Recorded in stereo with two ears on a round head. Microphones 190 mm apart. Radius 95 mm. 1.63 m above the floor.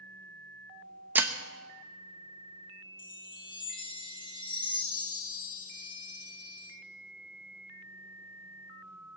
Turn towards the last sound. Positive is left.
turn(degrees=25)  # may be behind; listen again after turning